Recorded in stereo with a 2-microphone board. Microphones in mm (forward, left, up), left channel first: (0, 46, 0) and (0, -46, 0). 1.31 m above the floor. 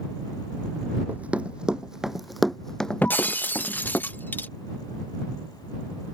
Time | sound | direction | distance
1.1 | running footsteps | 15° right (ahead or behind) | ?
3.0 | breaking glass | 20° left (ahead or behind) | ?